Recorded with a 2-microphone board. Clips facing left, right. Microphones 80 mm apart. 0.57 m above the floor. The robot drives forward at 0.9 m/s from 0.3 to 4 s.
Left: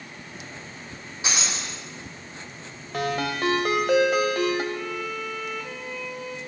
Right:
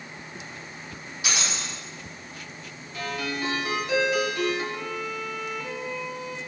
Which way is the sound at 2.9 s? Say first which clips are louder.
Left 5 dB; 75° left (ahead or behind).